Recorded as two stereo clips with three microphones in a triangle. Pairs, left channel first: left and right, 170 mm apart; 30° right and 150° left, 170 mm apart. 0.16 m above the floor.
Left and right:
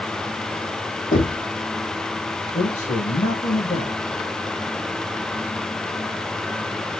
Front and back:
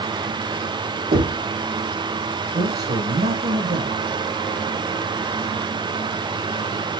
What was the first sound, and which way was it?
Knocking, 125° left.